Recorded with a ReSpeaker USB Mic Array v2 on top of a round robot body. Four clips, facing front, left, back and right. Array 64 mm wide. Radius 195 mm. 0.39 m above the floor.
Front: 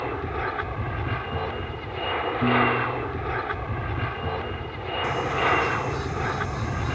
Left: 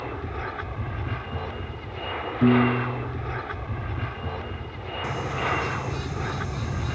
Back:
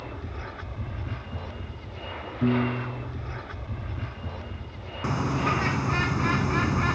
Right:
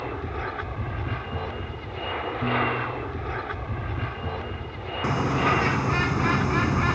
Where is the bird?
130° right.